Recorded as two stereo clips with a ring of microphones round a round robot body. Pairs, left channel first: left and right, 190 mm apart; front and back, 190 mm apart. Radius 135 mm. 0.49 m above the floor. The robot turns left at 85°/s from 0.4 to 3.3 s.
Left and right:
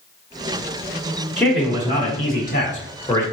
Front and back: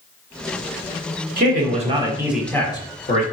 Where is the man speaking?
175° left, 1.3 m; by 3.2 s 20° left, 1.3 m.